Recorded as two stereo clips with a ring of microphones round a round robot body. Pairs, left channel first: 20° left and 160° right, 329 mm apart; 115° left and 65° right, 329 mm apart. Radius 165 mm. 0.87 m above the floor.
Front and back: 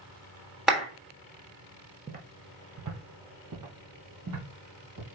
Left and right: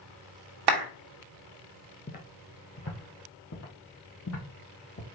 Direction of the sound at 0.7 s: 70° right.